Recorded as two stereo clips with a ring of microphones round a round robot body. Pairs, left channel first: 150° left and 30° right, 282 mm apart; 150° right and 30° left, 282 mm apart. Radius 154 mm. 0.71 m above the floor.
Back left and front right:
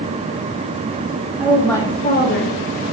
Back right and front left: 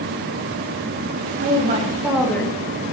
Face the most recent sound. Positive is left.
turn(degrees=140)